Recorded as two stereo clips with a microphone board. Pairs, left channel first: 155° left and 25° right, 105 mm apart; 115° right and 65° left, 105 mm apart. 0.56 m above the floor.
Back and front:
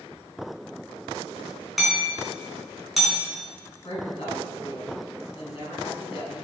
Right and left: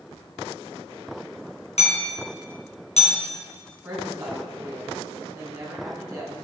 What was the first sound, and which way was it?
Hammering, 110° right.